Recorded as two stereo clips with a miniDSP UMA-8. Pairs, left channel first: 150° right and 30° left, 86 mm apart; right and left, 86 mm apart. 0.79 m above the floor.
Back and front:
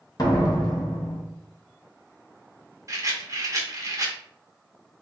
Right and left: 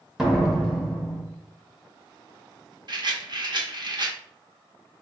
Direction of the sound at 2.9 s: 75° left.